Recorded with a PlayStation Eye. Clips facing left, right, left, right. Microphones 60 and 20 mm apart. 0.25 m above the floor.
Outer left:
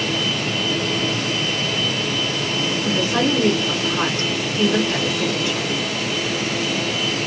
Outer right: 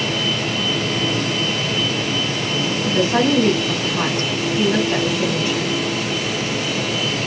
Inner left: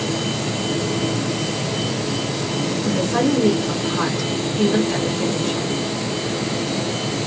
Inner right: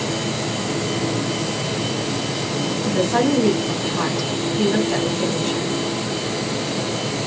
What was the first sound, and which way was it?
A woman speaking, 35° right (ahead or behind).